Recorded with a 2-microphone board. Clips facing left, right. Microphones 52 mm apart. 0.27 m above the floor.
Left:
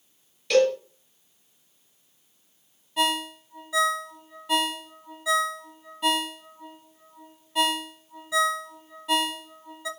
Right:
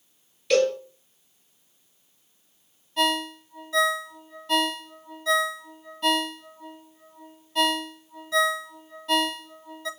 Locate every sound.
0.5 s a cowbell: centre (ahead or behind), 4 m
3.0 s a ringtone: 10° left (ahead or behind), 0.6 m